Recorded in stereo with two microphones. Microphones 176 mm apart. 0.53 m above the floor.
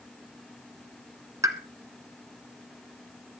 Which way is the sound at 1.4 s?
20° right (ahead or behind).